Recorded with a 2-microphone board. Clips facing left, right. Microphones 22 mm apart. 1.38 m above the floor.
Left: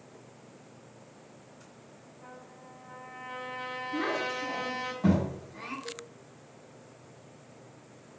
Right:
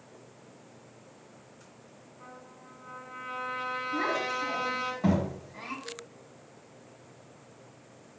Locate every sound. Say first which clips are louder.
2.2 s a trumpet: even; 50° right (ahead or behind), 4 m
3.9 s a child speaking: even; 20° right (ahead or behind), 3.5 m
5.8 s a cowbell: left 1 dB; 20° left (ahead or behind), 1.0 m